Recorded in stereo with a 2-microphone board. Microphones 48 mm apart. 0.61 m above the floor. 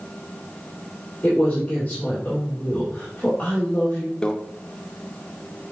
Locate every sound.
1.2 s a man speaking: 25° left (ahead or behind), 2.5 m
4.2 s a microwave: 20° left (ahead or behind), 0.8 m